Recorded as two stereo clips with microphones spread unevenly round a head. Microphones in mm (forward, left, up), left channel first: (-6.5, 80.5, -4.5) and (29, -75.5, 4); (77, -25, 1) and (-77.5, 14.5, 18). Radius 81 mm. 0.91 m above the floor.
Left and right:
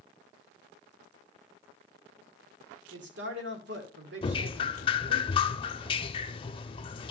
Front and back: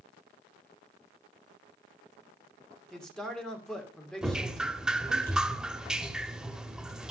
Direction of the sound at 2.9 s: 100° right.